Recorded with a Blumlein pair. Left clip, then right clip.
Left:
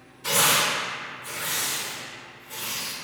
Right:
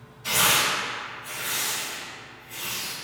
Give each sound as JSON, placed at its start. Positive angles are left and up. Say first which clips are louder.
{"t": 0.2, "sound": "tearing paper", "louder": "even", "azimuth_deg": 30, "distance_m": 1.8}